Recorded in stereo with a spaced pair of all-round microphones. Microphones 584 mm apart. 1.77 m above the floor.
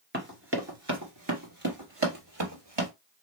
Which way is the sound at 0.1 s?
20° right (ahead or behind).